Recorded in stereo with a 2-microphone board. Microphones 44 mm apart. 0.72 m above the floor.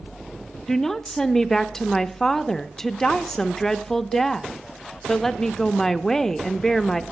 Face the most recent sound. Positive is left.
turn(degrees=10)  # may be behind; listen again after turning